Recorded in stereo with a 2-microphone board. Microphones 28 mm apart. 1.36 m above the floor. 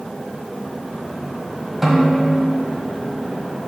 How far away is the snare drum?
About 1.8 m.